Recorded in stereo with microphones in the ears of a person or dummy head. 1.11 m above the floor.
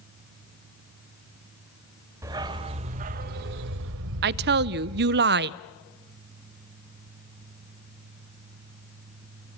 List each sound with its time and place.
2.2 s a dog barking: 15° right (ahead or behind), 1.3 m; by 5.2 s 65° right (ahead or behind), 2 m
4.2 s a woman speaking: 50° right (ahead or behind), 0.5 m